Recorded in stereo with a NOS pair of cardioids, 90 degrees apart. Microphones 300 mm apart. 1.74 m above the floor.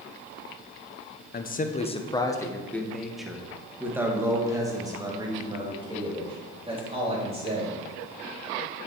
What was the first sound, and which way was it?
A man speaking, 35° left.